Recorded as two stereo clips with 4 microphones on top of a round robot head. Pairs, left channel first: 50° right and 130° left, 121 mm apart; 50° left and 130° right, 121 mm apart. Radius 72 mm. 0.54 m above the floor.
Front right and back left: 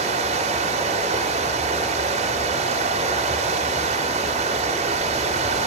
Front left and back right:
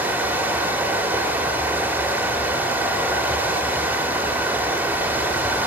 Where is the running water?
155° left, 1.5 m.